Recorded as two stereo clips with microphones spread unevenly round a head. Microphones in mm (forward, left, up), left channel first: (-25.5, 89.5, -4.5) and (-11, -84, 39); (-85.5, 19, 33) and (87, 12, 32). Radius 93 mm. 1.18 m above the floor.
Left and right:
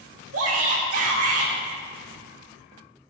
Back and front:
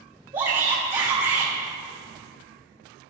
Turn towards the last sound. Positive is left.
turn(degrees=-65)